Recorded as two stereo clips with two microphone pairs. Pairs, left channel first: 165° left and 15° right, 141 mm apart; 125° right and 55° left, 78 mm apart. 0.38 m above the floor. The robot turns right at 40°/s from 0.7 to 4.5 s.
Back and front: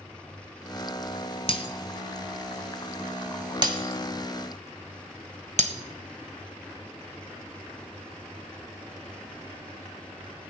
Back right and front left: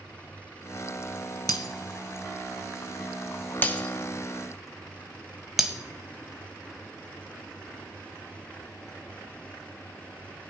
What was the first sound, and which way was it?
Breaking glass, 150° right.